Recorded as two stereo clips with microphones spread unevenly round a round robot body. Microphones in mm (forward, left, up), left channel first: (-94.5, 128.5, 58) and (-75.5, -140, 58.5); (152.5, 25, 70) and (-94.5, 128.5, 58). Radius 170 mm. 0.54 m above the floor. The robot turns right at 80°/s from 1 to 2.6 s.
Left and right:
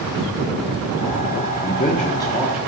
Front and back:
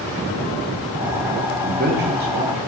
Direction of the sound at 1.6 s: 115° left.